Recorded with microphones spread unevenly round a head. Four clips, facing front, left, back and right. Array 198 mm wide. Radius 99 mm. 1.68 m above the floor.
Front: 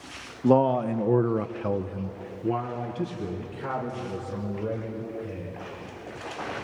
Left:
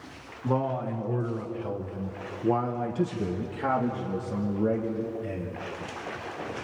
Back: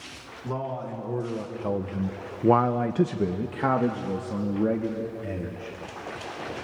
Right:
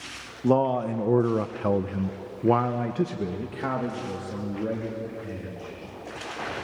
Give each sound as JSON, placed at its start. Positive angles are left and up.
{"t": 0.4, "sound": "a man speaking", "azimuth_deg": -35, "distance_m": 1.4}